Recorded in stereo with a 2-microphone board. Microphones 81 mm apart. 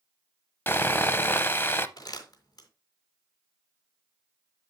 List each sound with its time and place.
0.7 s sawing: 25° left (ahead or behind), 0.7 m
2.0 s crumpling: 50° left (ahead or behind), 2.5 m